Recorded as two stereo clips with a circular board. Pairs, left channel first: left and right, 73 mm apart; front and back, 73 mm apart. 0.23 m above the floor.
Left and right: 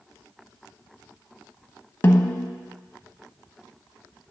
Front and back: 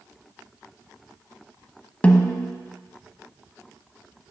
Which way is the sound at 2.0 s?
60° left.